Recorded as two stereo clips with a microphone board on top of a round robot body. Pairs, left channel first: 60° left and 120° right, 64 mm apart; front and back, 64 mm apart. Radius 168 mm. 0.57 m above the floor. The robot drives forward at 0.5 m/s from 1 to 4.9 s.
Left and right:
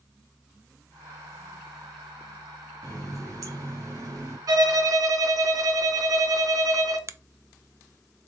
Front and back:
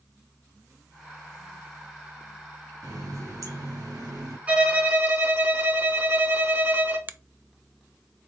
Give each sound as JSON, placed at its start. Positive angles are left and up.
{"t": 2.8, "sound": "a running tap", "azimuth_deg": -150, "distance_m": 2.5}
{"t": 4.5, "sound": "a violin", "azimuth_deg": -110, "distance_m": 1.4}
{"t": 7.1, "sound": "a finger snap", "azimuth_deg": -130, "distance_m": 0.5}